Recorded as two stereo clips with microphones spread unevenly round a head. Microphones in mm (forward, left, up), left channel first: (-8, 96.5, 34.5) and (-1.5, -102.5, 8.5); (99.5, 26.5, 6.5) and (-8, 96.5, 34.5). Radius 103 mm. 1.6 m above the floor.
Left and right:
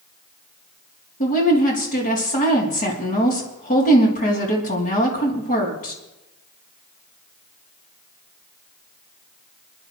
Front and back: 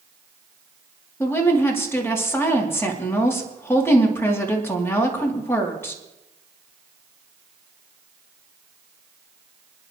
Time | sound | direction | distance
1.2 | a woman speaking | 40° left | 3 m